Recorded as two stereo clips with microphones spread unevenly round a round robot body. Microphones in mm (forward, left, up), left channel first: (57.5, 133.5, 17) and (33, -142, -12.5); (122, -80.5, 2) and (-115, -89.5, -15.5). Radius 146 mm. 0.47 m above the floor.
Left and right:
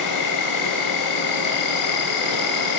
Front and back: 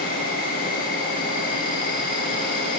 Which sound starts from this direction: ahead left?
An insect, at 0.0 s.